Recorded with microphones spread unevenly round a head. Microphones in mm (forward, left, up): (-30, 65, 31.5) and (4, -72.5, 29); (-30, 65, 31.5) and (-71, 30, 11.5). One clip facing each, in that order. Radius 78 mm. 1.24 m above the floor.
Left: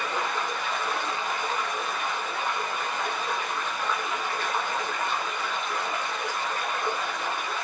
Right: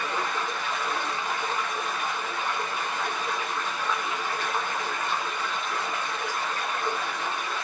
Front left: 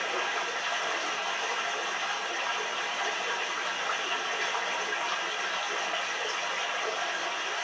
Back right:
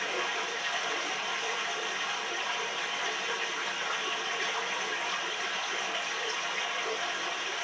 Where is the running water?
25° left, 1.6 m.